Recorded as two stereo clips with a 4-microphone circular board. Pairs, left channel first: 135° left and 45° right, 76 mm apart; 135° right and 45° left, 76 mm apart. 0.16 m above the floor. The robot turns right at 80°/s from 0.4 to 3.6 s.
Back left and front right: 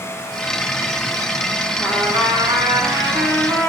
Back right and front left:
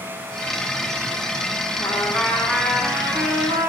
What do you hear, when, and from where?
1.8 s a trumpet: 120° right, 9 m; by 3.7 s 25° left, 9 m